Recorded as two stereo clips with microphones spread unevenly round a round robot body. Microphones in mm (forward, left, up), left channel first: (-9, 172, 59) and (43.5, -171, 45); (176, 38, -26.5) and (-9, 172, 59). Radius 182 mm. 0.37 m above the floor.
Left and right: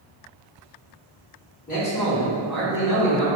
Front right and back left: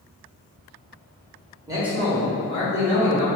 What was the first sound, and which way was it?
A man speaking, 50° left.